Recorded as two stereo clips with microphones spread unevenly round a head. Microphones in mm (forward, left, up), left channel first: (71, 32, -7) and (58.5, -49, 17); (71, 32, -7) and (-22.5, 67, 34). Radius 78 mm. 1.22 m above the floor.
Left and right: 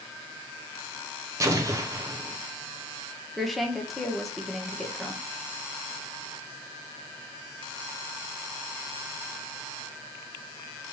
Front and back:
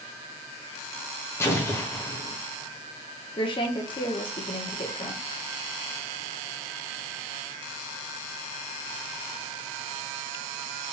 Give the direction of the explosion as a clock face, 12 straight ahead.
1 o'clock.